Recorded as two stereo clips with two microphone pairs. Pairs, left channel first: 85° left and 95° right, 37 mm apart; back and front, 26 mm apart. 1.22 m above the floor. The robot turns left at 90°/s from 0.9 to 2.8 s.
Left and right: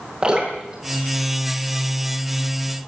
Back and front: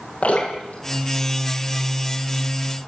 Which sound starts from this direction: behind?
Dripping, at 0.2 s.